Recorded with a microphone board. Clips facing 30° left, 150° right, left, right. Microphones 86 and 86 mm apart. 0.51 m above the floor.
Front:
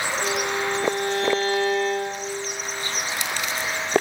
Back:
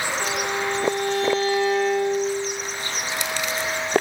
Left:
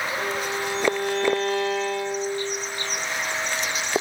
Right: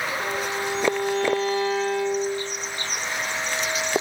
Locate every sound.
0.2 s a violin: 70° left, 7 m